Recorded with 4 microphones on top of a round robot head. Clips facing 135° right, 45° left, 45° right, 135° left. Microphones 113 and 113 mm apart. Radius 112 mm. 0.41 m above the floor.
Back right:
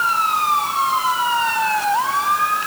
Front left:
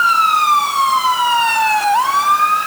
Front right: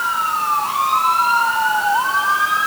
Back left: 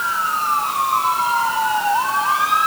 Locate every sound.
Only background noise.